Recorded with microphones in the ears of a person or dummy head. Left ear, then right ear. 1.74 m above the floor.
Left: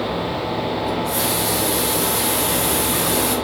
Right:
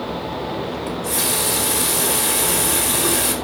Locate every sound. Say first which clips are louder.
0.9 s a running tap: left 2 dB; 25° right (ahead or behind), 4 m